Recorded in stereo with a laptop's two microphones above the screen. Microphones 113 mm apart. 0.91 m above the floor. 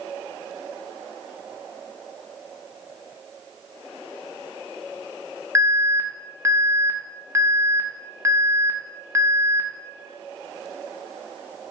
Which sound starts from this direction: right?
An alarm, at 5.5 s.